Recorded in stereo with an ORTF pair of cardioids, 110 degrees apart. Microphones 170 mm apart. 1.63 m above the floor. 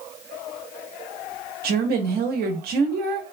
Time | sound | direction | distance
1.6 | a woman speaking | 65° right | 0.8 m